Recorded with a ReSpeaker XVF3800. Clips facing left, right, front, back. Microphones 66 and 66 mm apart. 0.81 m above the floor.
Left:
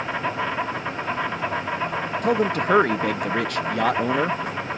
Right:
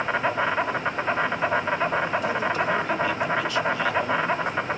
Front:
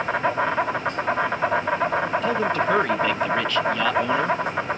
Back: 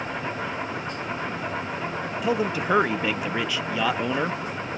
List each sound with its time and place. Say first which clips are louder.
0.0 s an insect: right 2 dB, front 8 dB; 30° right, 2 m
2.2 s a man speaking: left 3 dB, front 3 dB; 100° left, 0.7 m